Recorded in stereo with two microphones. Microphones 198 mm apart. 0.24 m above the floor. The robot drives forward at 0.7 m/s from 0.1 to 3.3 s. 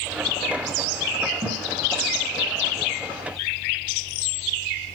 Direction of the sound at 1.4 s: 35° right (ahead or behind).